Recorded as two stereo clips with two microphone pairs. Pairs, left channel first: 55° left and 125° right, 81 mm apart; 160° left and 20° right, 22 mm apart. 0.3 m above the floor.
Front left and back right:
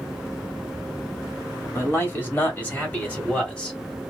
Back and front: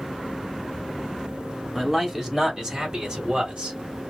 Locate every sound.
1.8 s a man speaking: 55° left, 1.3 m; by 3.8 s 20° right, 1.7 m